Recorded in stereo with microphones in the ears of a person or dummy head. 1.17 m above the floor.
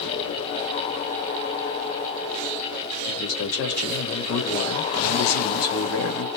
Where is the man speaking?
80° left, 1.7 m.